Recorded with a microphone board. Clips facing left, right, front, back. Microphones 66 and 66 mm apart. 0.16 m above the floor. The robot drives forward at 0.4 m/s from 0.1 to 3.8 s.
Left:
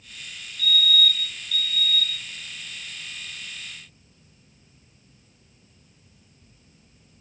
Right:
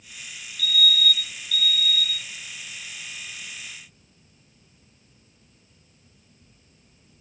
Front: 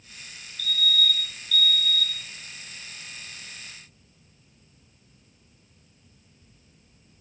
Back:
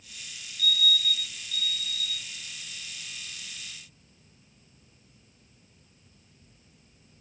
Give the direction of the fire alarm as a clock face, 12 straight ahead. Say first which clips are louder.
Left 1 dB, front 2 dB; 6 o'clock.